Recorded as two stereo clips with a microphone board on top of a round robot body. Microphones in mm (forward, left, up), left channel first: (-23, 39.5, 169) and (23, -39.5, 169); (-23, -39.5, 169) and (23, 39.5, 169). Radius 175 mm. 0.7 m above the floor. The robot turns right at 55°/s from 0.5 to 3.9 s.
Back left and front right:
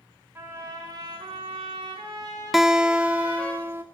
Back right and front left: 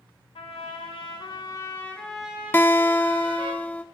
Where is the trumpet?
120° right, 5 m; by 3.5 s 45° left, 5 m.